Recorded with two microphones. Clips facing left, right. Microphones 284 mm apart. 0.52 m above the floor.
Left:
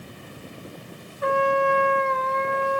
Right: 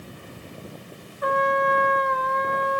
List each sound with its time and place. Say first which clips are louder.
1.2 s a trumpet: left 2 dB; 30° left (ahead or behind), 0.8 m